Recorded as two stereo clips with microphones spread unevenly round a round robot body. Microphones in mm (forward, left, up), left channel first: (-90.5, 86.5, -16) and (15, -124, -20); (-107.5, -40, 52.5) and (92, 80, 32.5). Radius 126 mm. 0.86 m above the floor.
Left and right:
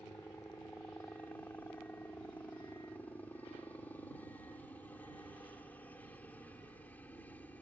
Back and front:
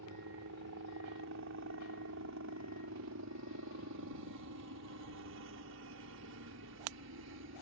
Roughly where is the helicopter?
Ahead left.